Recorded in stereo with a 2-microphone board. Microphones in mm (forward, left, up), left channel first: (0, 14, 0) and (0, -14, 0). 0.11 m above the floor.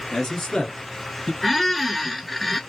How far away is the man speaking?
About 1.5 m.